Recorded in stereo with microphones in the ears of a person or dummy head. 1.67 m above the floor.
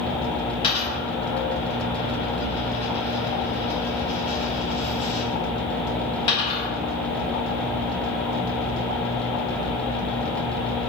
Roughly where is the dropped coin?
Left.